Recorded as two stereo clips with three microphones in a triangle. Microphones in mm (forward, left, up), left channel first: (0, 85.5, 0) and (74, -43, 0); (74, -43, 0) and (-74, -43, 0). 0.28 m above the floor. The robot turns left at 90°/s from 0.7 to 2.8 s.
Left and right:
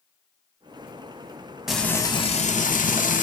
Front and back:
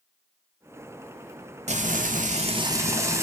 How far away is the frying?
About 0.6 m.